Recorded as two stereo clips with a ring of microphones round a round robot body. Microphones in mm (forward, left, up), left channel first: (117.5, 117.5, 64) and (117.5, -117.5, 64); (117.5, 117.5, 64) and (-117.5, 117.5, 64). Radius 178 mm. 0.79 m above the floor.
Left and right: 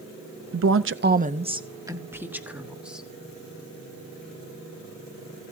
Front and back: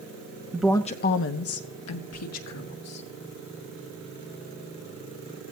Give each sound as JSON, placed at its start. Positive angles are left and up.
{"t": 0.5, "sound": "a woman speaking", "azimuth_deg": -105, "distance_m": 0.6}